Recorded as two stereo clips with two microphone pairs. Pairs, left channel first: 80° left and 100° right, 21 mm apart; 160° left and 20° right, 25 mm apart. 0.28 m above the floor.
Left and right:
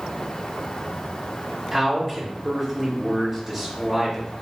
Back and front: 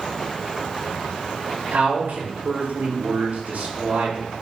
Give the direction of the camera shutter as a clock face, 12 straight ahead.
I don't hear a camera shutter.